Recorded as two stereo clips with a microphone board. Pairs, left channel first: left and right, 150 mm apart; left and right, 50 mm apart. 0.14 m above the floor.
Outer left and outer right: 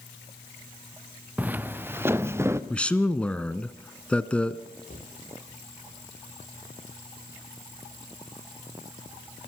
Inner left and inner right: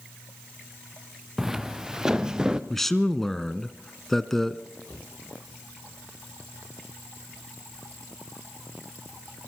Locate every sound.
1.4 s footsteps: 10° right (ahead or behind), 0.9 m; by 2.6 s 15° right (ahead or behind), 1.6 m
2.7 s a man speaking: 10° left (ahead or behind), 1.2 m
4.9 s a cupboard door: 60° left (ahead or behind), 8.5 m